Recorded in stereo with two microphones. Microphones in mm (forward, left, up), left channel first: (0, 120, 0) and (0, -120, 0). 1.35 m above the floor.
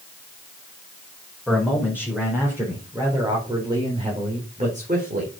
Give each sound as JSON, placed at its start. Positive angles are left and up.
{"t": 1.5, "sound": "a man speaking", "side_deg": 0, "distance_m": 5.0}